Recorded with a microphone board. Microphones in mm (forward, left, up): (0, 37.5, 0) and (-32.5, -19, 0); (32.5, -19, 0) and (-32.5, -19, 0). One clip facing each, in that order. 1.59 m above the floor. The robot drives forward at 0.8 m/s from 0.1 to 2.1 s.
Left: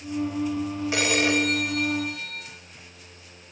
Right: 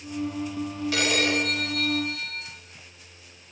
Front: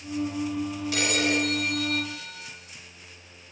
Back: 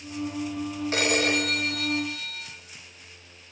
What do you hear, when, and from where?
0.9 s a phone ringing: 130° left, 4 m; by 2.5 s 135° left, 5 m